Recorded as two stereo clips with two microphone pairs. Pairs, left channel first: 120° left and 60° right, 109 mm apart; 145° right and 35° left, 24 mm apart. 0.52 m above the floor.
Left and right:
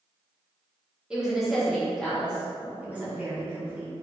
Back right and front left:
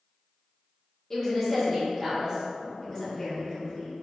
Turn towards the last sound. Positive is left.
turn(degrees=-120)